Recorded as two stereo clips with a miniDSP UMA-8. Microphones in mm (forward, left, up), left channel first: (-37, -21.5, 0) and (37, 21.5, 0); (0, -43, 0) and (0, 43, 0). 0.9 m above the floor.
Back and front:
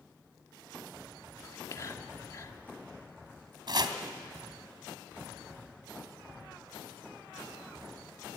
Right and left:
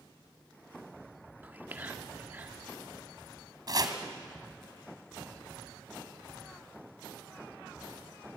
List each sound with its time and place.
1.4 s whispering: 160° left, 1.7 m
3.7 s chopping: 55° left, 1.8 m